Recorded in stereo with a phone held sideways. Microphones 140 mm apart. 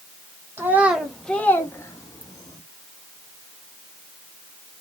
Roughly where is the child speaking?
Centre.